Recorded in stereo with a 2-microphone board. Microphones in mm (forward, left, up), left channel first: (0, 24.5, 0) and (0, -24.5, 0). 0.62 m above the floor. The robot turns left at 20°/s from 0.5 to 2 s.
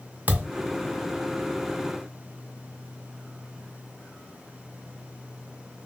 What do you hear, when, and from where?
0.3 s a thud: 40° right (ahead or behind), 0.7 m